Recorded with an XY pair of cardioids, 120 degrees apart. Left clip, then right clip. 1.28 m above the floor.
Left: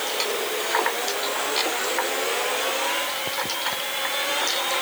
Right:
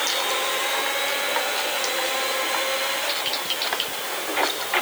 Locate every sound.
Only background noise.